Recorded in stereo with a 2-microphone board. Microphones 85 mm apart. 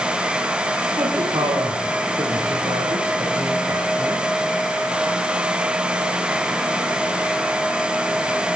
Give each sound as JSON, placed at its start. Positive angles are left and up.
{"t": 1.0, "sound": "a woman speaking", "side_deg": -55, "distance_m": 8.5}